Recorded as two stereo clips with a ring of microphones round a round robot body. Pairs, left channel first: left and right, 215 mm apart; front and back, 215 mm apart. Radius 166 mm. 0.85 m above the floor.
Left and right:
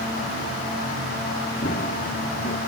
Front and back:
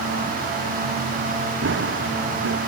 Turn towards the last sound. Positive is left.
turn(degrees=155)